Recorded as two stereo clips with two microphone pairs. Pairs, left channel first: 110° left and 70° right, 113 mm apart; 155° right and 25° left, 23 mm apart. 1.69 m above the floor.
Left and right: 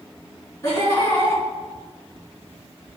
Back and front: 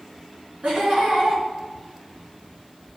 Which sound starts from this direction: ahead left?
Laughter, at 0.6 s.